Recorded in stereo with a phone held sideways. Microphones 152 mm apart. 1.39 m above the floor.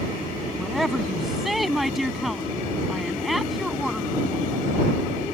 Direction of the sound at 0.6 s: Centre (ahead or behind).